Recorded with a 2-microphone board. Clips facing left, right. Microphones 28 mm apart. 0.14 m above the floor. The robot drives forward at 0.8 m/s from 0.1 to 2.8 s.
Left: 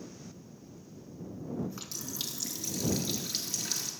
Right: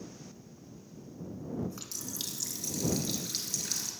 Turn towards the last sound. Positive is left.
turn(degrees=5)  # may be behind; listen again after turning